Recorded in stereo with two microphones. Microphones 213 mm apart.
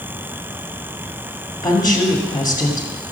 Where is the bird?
No bird in this recording.